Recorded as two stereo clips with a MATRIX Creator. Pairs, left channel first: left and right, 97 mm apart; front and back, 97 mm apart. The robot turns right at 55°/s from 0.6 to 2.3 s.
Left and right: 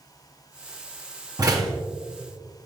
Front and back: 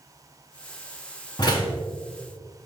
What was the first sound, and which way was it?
A door slam, 45° right.